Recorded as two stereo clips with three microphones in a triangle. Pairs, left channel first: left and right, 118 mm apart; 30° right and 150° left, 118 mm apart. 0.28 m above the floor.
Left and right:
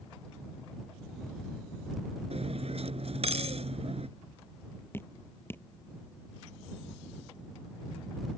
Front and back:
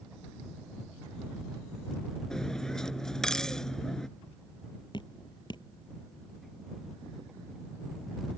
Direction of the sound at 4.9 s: 20° left.